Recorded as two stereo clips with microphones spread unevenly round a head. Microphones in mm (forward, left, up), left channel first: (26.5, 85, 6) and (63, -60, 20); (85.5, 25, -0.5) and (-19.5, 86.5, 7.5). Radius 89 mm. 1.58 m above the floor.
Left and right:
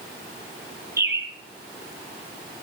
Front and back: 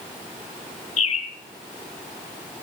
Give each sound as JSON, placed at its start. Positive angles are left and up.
{"t": 1.0, "sound": "a bird", "azimuth_deg": -5, "distance_m": 4.5}